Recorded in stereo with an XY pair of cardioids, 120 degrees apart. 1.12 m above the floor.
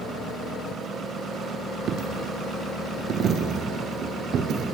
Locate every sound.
1.9 s a dropped coin: 55° right, 1.6 m